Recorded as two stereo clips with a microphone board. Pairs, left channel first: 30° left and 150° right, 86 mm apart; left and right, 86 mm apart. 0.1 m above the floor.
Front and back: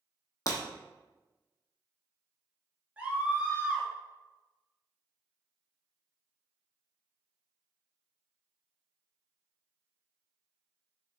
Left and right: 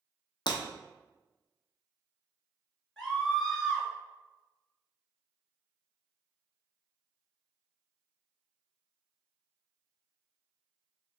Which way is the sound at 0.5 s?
80° left.